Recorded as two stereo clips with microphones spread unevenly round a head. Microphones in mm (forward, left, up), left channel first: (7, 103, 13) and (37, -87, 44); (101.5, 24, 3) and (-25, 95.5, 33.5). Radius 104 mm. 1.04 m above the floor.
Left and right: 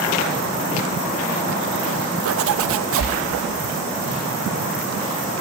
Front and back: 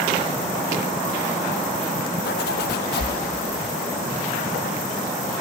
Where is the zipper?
65° right, 0.6 m.